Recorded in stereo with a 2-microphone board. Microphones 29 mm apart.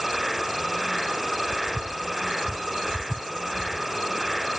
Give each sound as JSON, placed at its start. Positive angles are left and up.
{"t": 0.0, "sound": "an insect", "side_deg": -5}